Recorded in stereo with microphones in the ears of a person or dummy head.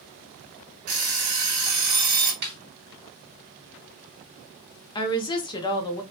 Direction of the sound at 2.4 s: 55° right (ahead or behind).